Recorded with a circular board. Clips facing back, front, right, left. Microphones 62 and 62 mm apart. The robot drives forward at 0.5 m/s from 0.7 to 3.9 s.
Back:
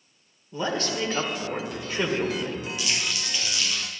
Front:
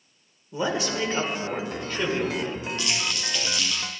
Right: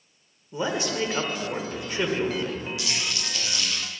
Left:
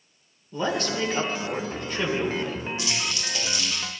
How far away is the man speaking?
About 1.3 m.